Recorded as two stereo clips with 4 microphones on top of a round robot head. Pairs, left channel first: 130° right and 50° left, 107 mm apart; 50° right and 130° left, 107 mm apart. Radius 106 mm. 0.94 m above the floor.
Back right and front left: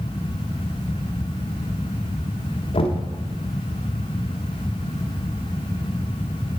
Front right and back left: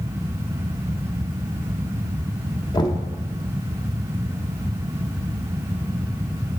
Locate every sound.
2.7 s knocking: 100° right, 0.9 m